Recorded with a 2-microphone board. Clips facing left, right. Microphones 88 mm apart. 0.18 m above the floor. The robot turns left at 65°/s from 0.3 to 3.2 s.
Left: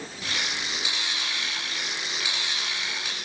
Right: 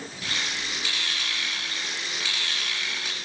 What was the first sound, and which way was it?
Only background noise.